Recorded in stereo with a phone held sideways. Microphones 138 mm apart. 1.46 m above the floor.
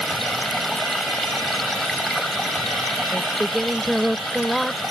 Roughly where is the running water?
Centre.